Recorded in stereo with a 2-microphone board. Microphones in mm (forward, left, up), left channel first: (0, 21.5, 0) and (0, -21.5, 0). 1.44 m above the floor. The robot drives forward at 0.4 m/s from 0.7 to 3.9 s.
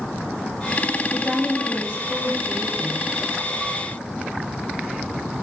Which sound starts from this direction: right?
A woman speaking, at 1.1 s.